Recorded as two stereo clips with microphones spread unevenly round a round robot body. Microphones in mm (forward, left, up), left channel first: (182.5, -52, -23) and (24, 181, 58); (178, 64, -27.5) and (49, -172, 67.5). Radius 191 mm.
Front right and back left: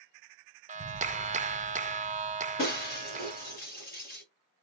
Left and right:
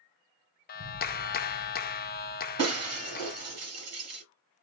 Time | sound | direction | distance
0.7 | a clap | 50° left | 0.7 m
2.6 | breaking glass | 125° right | 1.6 m